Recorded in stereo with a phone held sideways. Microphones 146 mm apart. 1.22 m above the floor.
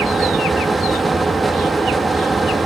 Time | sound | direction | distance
0.0 | a fan | centre (ahead or behind) | 1.5 m